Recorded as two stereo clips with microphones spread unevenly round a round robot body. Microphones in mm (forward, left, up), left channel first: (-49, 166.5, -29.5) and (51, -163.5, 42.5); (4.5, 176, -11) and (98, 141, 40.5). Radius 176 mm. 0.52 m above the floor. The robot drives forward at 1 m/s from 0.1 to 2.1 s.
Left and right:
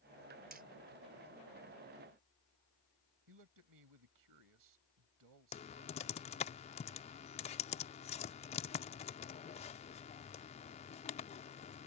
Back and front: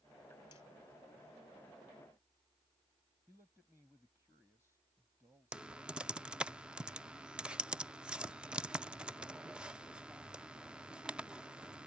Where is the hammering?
140° right.